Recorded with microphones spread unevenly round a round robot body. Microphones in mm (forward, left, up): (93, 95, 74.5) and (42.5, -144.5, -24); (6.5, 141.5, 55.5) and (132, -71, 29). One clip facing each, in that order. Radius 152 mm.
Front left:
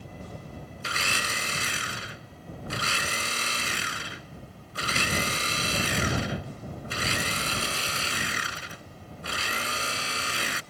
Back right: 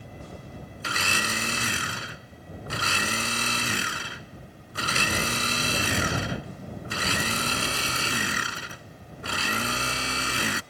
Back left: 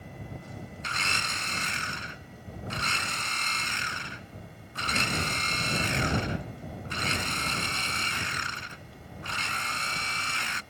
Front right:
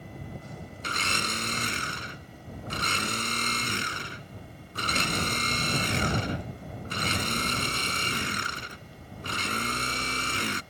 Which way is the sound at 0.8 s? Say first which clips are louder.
Back right 4 dB, front right 5 dB; 120° right.